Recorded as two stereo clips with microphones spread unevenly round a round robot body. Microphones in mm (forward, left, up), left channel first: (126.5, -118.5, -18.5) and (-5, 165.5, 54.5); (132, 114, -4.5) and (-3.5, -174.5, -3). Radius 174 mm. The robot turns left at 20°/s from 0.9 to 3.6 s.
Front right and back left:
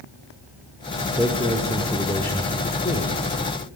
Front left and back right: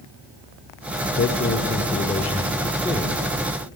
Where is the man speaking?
25° left, 1.1 m; by 3.2 s 15° right, 1.1 m.